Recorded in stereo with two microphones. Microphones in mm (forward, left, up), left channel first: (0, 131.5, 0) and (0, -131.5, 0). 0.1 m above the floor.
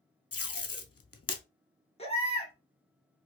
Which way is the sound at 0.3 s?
60° left (ahead or behind).